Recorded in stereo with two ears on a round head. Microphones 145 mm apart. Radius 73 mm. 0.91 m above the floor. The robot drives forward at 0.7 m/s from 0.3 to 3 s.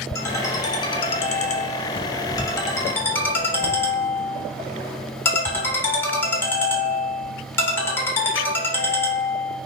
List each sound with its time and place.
0.1 s a ringtone: 20° left (ahead or behind), 0.9 m; by 9.6 s 15° left (ahead or behind), 1.1 m